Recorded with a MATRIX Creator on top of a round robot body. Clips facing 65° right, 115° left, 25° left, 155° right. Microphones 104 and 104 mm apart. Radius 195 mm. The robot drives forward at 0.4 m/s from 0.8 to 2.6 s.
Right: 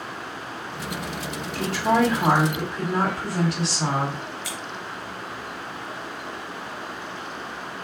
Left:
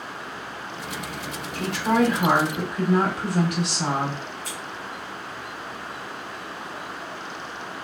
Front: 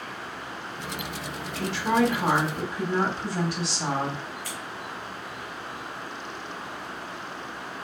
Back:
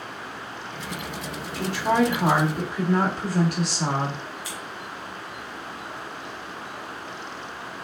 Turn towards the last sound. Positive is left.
turn(degrees=-85)